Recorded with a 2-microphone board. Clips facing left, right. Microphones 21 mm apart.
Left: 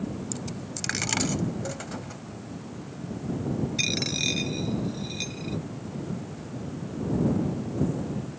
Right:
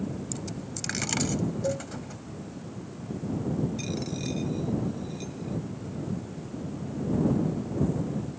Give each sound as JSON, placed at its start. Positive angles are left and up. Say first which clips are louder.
{"t": 0.3, "sound": "a dropped coin", "louder": "left 1 dB", "side_deg": 10}
{"t": 1.6, "sound": "a cowbell", "louder": "right 5 dB", "side_deg": -60}
{"t": 3.8, "sound": "a dropped coin", "louder": "left 7 dB", "side_deg": 55}